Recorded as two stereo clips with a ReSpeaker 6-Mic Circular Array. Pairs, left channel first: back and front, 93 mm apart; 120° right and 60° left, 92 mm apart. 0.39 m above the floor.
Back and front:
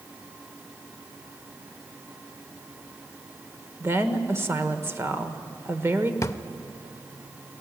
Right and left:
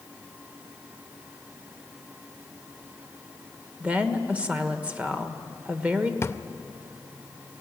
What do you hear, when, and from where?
3.8 s a woman speaking: straight ahead, 1.3 m
6.2 s a drawer: 155° right, 0.5 m